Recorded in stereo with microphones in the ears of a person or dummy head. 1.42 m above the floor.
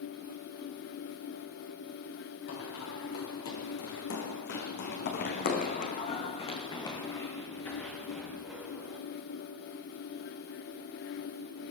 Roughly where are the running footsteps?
Left.